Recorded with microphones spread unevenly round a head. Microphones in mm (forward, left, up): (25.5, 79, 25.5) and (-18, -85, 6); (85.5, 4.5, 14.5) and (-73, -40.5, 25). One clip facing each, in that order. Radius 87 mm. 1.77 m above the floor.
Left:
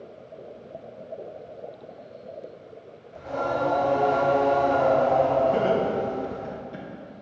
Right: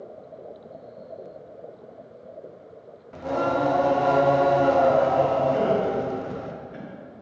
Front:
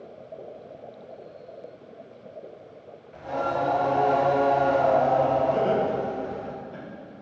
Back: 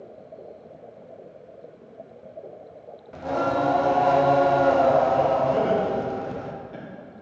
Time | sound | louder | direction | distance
3.1 | singing | right 3 dB, back 3 dB | 135° right | 0.7 m
5.5 | laughter | even, back 1 dB | 115° left | 1.5 m